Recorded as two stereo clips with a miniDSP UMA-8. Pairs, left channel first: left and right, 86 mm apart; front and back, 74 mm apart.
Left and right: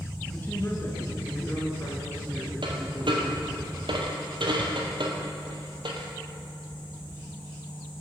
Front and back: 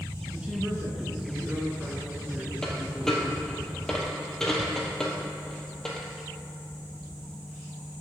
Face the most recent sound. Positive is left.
turn(degrees=-85)